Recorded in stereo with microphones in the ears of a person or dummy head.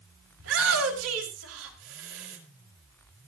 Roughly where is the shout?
Right.